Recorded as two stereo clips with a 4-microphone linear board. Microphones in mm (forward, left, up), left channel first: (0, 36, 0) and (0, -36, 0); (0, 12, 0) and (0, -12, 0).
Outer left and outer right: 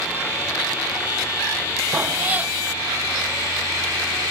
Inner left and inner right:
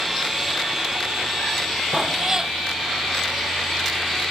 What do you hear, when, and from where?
1.9 s a cat meowing: 20° right (ahead or behind)